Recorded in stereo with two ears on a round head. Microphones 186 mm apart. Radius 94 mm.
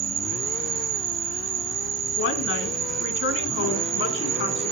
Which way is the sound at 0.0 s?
70° right (ahead or behind).